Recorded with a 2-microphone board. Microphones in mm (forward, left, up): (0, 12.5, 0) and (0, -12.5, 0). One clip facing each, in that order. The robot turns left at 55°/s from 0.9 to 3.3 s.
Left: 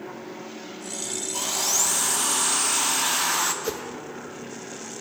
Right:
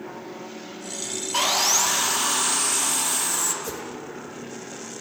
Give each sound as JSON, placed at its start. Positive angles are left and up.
{"t": 1.3, "sound": "sawing", "azimuth_deg": -115, "distance_m": 0.7}
{"t": 3.6, "sound": "a whoosh", "side_deg": 35, "distance_m": 0.8}